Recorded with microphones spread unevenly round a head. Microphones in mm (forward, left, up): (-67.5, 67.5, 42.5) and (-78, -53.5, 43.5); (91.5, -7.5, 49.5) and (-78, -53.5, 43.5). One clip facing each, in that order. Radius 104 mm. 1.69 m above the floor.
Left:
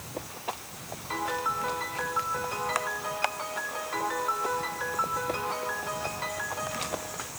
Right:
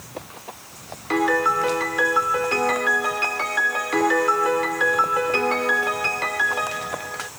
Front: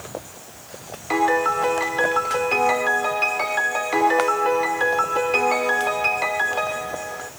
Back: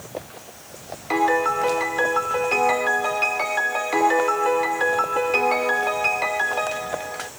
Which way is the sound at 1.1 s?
75° right.